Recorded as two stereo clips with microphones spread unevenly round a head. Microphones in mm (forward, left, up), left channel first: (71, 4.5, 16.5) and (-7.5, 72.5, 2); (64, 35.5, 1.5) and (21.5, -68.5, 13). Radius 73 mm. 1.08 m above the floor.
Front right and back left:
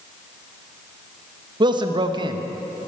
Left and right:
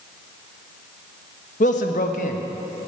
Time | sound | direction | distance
1.6 | a man speaking | 95° left | 1.0 m